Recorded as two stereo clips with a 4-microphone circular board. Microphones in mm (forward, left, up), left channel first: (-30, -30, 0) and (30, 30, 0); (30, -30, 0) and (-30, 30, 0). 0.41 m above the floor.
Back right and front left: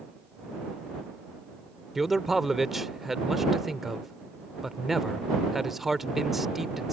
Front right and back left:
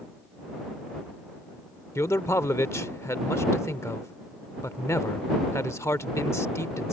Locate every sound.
1.9 s a man speaking: 40° right